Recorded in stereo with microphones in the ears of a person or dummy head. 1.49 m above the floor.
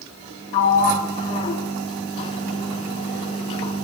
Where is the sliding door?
30° left (ahead or behind), 3.5 m.